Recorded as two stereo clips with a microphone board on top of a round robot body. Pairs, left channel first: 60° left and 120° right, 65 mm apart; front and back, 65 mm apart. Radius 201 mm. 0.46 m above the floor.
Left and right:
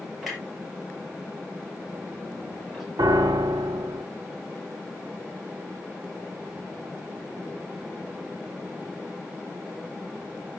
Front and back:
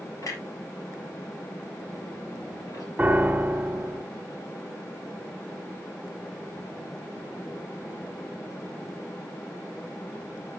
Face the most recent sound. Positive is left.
turn(degrees=-105)